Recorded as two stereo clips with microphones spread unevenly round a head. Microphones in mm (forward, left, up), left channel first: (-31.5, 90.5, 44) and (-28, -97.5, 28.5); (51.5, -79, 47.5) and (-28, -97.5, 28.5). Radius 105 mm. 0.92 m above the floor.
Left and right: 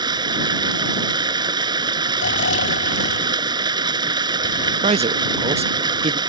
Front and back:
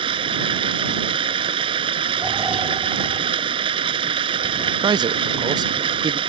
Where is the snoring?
115° left.